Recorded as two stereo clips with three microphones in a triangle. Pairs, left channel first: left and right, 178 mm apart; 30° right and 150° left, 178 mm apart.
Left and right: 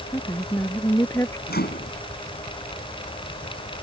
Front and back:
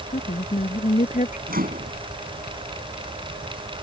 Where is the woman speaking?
15° left.